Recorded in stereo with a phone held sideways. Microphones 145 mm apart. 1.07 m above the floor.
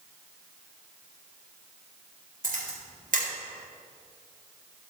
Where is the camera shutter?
70° right (ahead or behind), 4 m.